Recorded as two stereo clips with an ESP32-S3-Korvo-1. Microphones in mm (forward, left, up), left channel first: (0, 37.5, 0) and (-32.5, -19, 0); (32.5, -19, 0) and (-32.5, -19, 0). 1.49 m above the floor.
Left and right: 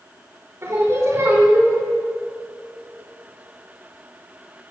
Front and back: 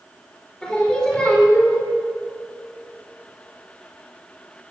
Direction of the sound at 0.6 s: 75° right.